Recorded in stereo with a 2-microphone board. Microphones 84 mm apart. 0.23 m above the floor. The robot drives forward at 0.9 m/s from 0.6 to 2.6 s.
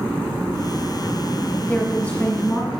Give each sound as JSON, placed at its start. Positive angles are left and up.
{"t": 1.7, "sound": "a woman speaking", "side_deg": 20, "distance_m": 1.0}